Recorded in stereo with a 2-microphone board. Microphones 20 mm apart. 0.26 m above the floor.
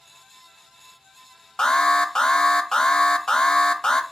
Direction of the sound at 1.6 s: 30° left (ahead or behind).